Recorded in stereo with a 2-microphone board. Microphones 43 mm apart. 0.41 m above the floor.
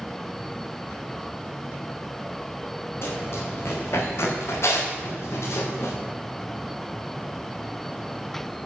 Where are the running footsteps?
65° left (ahead or behind), 7 m; by 5.9 s 75° left (ahead or behind), 8 m.